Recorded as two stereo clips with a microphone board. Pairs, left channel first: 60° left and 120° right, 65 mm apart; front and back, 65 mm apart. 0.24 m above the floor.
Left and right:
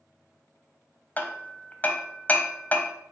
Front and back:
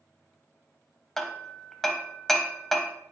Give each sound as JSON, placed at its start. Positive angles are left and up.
{"t": 1.2, "sound": "hammering", "azimuth_deg": 80, "distance_m": 1.0}